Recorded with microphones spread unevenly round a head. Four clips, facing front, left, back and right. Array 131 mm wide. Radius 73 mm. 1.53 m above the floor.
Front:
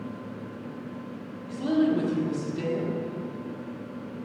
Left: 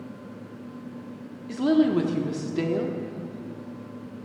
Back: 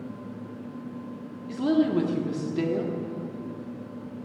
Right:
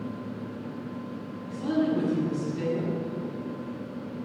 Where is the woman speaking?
105° left, 1.1 m.